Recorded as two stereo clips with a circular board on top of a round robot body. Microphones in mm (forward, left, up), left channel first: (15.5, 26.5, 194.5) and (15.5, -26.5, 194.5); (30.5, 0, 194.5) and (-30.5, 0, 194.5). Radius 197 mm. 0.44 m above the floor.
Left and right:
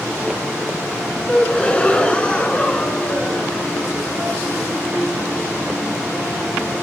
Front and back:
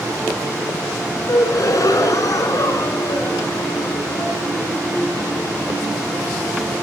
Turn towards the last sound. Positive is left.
turn(degrees=25)